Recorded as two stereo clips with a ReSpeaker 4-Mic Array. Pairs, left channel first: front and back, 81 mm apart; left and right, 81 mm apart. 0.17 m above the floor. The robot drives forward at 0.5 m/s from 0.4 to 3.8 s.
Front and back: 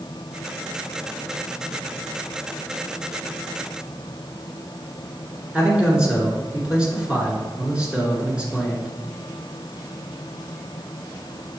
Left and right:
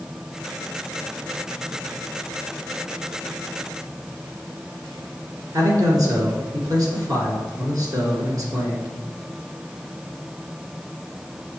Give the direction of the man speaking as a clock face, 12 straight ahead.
4 o'clock.